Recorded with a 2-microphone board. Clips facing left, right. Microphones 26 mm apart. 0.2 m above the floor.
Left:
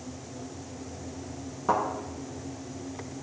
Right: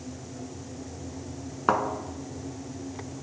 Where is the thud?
55° right (ahead or behind), 1.0 m.